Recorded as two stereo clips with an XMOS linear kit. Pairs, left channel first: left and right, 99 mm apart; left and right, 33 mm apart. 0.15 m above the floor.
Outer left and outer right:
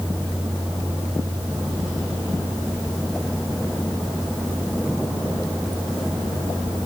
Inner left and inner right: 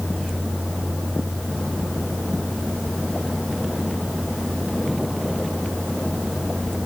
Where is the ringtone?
No ringtone in this recording.